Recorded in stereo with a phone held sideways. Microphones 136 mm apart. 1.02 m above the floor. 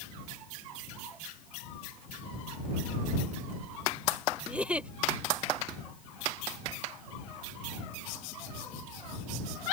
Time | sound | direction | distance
4.5 | a giggle | 10° right (ahead or behind) | ?